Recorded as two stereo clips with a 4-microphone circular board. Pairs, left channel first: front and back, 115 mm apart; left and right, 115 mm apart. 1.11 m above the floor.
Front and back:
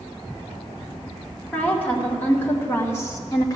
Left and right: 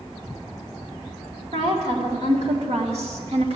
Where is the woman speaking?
75° right, 2.5 m; by 3.6 s 60° right, 1.4 m.